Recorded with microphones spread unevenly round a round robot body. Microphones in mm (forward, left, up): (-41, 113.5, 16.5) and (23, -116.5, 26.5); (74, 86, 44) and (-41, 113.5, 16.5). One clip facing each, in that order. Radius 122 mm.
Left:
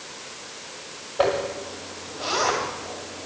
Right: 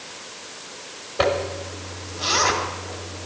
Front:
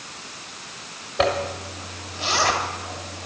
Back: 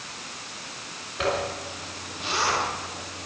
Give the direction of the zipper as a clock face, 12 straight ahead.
1 o'clock.